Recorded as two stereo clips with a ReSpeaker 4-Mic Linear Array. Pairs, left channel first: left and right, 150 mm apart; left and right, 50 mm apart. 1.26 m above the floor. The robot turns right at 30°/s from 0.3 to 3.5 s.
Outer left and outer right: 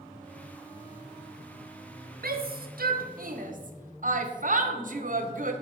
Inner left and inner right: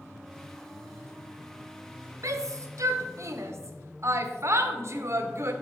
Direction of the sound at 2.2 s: 80° right.